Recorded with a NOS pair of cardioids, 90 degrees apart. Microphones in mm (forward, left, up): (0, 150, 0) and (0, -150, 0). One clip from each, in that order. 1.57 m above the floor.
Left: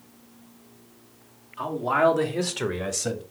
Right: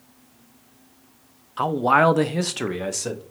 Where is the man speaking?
60° right, 0.7 m; by 3.2 s straight ahead, 1.1 m.